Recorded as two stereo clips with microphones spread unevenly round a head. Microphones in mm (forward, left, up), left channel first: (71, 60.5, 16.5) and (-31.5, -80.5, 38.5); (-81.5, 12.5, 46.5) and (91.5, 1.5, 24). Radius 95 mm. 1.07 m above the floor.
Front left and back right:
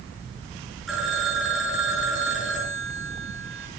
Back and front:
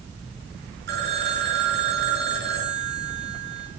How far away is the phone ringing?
About 10 m.